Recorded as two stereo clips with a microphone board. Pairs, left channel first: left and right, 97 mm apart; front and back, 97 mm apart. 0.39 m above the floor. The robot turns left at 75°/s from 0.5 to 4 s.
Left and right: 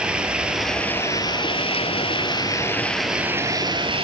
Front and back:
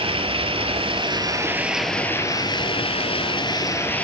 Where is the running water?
170° right, 1.0 m; by 4.0 s 75° right, 1.0 m.